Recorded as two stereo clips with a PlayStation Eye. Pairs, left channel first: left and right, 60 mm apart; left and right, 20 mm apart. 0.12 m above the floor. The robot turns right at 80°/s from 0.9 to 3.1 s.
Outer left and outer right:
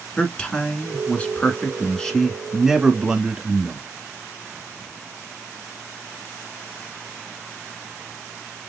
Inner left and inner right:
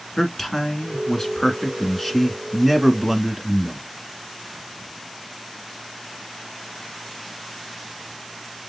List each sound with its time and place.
0.2 s a man speaking: 15° left (ahead or behind), 1.4 m; by 3.9 s 15° right (ahead or behind), 1.4 m